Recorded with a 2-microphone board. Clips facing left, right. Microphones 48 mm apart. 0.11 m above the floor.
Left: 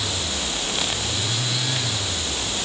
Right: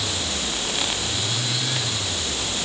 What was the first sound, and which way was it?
Only background noise.